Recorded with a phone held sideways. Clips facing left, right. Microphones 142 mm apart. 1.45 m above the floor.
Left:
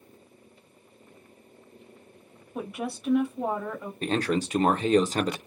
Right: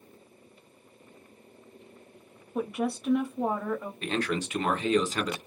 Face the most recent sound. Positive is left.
turn(degrees=40)  # may be behind; listen again after turning